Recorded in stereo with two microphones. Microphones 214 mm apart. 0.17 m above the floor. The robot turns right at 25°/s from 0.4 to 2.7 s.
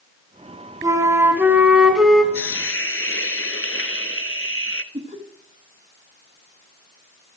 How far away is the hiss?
About 0.6 m.